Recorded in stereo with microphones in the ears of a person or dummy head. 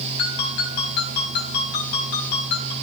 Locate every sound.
0.2 s a ringtone: 60° left (ahead or behind), 6 m